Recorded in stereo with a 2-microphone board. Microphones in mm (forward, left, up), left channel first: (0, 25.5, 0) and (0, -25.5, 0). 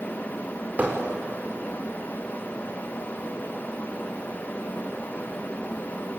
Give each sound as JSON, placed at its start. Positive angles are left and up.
{"t": 0.8, "sound": "hammering", "side_deg": -30, "distance_m": 4.5}